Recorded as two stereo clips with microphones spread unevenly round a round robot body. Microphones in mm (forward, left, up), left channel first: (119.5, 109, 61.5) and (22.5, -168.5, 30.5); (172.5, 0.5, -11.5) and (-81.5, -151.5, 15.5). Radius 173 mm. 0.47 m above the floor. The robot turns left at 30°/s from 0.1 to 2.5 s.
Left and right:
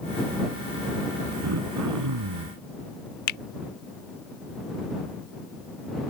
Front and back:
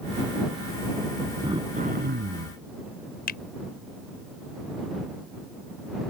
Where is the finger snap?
85° left.